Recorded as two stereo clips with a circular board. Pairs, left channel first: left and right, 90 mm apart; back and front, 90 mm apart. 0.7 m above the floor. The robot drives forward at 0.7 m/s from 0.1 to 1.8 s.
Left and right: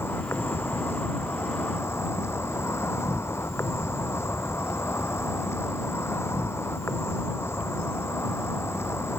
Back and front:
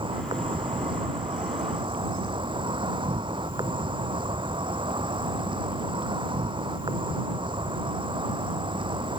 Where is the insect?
25° left; by 9.2 s 30° left.